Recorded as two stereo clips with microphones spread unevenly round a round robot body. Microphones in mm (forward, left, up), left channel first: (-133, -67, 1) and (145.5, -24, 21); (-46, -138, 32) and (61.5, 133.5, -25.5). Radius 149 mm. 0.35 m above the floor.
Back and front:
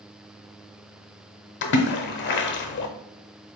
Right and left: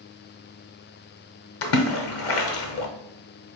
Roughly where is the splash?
Behind right.